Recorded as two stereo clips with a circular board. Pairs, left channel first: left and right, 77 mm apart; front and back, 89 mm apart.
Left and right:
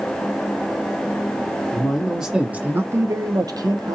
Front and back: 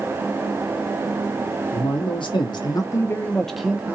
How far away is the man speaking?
About 1.0 m.